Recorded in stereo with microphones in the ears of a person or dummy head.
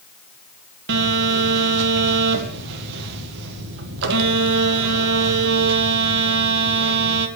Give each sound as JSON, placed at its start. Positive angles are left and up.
{"t": 0.9, "sound": "a phone buzzing", "side_deg": -60, "distance_m": 1.6}